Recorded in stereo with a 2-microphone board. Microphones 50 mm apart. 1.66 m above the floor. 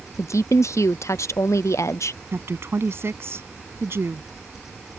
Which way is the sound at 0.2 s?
70° left (ahead or behind).